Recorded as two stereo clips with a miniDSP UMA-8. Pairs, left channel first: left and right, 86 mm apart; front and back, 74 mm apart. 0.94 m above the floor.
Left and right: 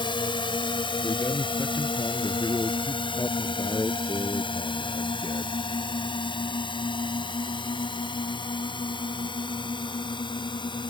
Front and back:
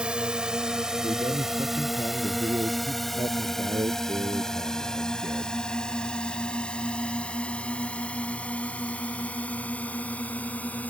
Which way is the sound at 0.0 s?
105° left.